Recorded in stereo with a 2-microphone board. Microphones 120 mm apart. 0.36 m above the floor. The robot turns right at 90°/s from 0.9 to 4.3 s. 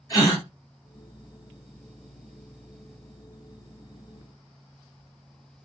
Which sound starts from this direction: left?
A gasp, at 0.1 s.